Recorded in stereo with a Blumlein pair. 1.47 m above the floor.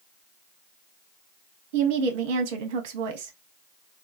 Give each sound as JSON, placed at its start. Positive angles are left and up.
{"t": 1.7, "sound": "a woman speaking", "azimuth_deg": -50, "distance_m": 0.7}